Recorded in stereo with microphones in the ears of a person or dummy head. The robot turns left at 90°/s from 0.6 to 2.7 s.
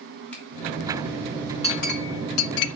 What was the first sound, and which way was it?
A finger snap, 10° left (ahead or behind).